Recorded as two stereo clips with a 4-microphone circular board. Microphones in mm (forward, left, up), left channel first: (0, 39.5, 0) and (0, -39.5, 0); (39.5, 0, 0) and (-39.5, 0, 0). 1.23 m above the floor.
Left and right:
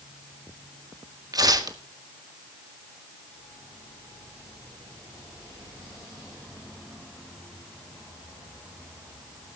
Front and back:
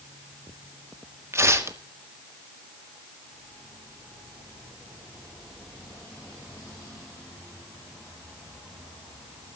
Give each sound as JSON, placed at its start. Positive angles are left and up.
{"t": 1.3, "sound": "tearing paper", "azimuth_deg": -125, "distance_m": 1.6}